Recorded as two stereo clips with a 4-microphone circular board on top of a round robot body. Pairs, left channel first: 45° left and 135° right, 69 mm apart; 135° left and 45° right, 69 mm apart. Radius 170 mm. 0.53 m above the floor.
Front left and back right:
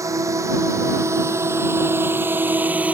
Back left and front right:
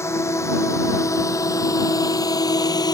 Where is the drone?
175° right; by 2.9 s 155° left.